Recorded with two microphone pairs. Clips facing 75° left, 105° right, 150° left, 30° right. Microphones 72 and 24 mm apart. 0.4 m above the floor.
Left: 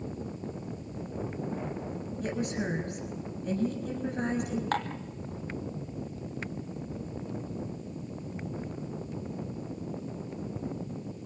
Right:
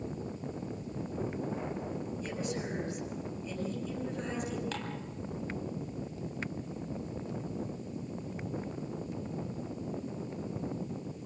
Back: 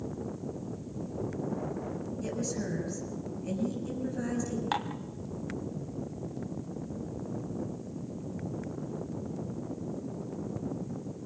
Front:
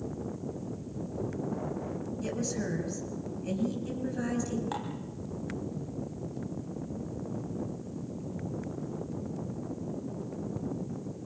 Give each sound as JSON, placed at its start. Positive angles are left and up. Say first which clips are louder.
{"t": 2.2, "sound": "a woman speaking", "louder": "left 8 dB, front 1 dB", "azimuth_deg": 45, "distance_m": 6.0}
{"t": 4.7, "sound": "dishes clattering", "louder": "left 7 dB, back 4 dB", "azimuth_deg": 110, "distance_m": 1.8}